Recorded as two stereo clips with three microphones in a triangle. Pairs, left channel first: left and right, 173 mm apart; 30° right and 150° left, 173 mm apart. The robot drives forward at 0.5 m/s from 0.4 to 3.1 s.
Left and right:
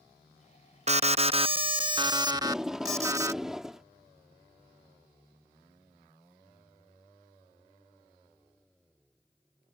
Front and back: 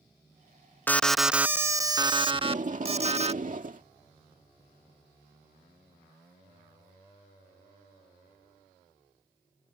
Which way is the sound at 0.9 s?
105° right.